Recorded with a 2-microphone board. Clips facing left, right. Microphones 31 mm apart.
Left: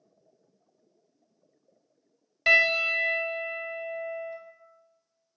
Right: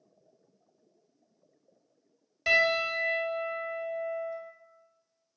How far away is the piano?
About 0.7 m.